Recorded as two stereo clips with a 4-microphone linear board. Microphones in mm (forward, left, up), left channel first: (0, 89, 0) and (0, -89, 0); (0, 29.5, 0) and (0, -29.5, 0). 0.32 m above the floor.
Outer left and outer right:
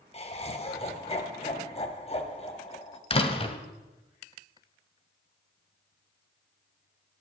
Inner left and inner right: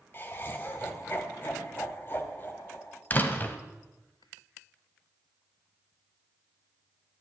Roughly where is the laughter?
Left.